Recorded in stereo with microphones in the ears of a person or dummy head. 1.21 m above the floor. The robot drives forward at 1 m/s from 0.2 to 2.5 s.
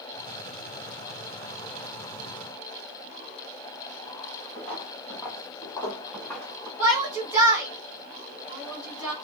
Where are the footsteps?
15° left (ahead or behind), 1.9 m; by 6.7 s 5° left (ahead or behind), 3 m.